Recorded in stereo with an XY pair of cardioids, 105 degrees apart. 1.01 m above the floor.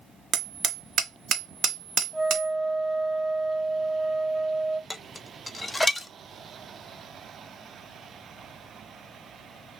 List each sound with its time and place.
0.3 s hammering: 55° right, 0.8 m
2.1 s a flute: 10° left, 2.0 m
4.9 s dishes clattering: 10° left, 0.5 m